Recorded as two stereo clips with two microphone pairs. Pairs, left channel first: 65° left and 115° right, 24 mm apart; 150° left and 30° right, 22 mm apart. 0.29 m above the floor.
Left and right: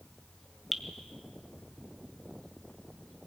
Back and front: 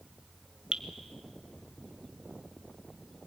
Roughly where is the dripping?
Ahead right.